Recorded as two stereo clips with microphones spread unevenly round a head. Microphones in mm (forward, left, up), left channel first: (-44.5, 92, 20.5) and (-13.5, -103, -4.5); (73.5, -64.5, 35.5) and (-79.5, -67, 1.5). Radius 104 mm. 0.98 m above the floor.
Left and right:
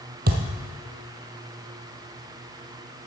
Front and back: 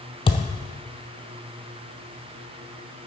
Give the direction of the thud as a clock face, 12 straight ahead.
1 o'clock.